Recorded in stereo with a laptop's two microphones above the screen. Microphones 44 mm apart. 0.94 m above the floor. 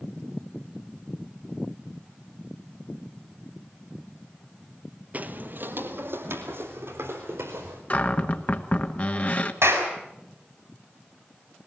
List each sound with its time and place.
5.1 s footsteps: 35° right (ahead or behind), 1.2 m; by 7.8 s 70° right (ahead or behind), 4.5 m
7.9 s a cupboard door: 35° left (ahead or behind), 1.2 m
9.6 s a clap: 75° right (ahead or behind), 4.5 m